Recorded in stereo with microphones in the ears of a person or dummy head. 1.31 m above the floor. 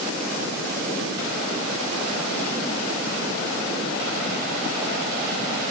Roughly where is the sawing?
No sawing in this recording.